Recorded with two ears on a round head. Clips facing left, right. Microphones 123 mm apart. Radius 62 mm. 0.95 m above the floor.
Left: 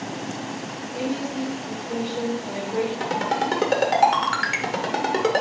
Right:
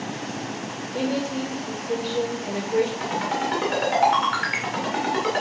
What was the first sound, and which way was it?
A woman speaking, 45° right (ahead or behind).